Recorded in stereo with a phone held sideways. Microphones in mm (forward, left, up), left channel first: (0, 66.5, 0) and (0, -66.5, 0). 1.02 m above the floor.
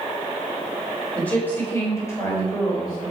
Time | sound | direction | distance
1.1 | a woman speaking | 10° left (ahead or behind) | 3.5 m